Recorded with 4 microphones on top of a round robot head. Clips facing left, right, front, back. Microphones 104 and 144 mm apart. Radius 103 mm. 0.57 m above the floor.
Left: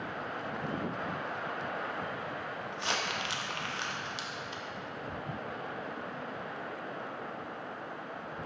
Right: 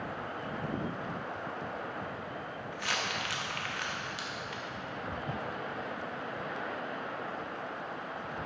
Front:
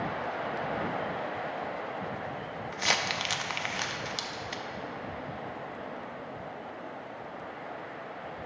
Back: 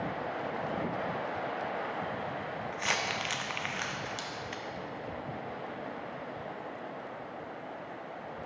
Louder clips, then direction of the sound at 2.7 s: Even, front 4 dB; 35° left.